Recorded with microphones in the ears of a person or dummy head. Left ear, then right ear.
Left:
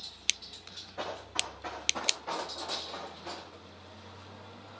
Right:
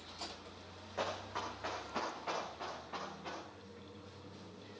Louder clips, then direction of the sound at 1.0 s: Left 3 dB; 40° right (ahead or behind).